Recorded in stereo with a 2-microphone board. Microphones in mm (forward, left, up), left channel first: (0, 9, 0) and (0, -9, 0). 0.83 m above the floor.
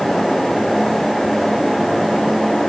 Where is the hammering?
I don't hear hammering.